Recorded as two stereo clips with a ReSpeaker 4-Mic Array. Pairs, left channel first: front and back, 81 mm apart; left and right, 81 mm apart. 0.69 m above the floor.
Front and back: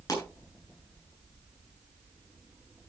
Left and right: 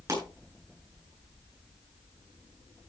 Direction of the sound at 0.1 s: 40° right.